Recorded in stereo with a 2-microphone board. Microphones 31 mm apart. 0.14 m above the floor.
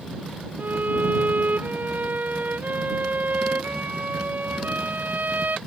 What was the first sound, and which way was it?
A violin, 65° right (ahead or behind).